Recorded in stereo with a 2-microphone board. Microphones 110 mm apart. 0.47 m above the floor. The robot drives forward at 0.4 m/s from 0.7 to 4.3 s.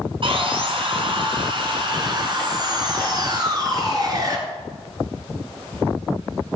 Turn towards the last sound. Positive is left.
turn(degrees=-35)  # may be behind; listen again after turning